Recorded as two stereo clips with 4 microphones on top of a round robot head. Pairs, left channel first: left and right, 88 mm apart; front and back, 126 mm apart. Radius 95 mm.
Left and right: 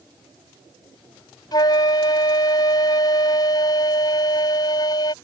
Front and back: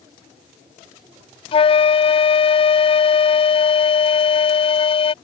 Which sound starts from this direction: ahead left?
A flute, at 1.5 s.